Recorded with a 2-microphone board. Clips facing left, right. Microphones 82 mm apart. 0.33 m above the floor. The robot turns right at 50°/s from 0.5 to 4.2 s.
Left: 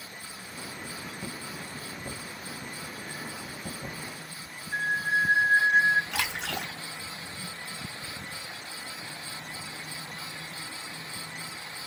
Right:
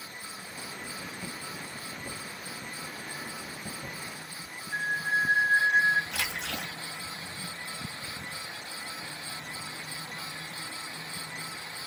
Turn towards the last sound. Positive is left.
turn(degrees=65)  # may be behind; listen again after turning